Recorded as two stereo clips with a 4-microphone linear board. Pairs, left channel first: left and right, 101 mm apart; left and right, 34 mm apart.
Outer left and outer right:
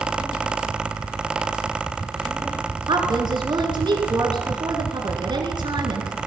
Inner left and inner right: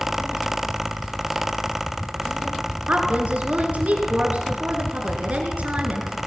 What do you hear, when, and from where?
2.9 s a woman speaking: 50° right (ahead or behind), 2.5 m